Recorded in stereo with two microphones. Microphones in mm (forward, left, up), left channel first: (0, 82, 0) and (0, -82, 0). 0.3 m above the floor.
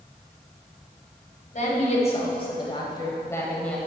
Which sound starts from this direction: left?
A woman speaking, at 1.5 s.